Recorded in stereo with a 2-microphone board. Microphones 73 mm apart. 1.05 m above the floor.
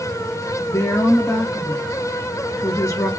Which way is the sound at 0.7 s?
45° left (ahead or behind).